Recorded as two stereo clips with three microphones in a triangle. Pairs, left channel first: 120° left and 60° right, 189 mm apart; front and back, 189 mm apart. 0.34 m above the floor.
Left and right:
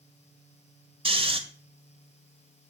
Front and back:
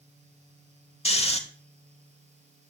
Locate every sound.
1.1 s snoring: 25° right, 1.8 m